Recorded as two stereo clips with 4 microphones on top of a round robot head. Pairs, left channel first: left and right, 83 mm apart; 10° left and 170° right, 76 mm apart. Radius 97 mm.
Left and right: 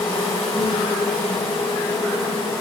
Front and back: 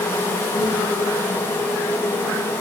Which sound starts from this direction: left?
An insect, at 0.0 s.